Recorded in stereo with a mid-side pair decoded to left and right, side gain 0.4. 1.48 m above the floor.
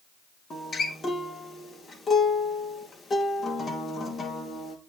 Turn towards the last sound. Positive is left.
turn(degrees=45)